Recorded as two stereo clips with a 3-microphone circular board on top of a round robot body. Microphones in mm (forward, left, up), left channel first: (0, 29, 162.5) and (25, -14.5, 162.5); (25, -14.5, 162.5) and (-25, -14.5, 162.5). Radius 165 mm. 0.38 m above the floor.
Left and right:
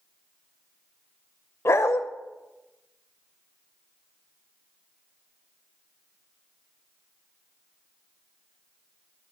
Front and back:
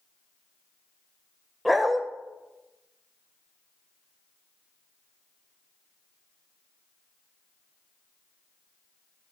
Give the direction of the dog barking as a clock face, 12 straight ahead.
9 o'clock.